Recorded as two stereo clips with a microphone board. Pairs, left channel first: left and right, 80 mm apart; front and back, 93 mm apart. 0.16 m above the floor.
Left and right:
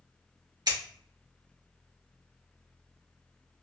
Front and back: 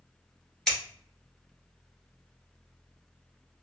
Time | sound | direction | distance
0.7 | scissors | 85° right | 1.9 m